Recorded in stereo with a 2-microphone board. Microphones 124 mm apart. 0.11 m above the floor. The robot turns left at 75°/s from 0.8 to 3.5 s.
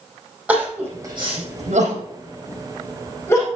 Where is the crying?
10° right (ahead or behind), 4 m; by 3.5 s 30° left (ahead or behind), 4 m.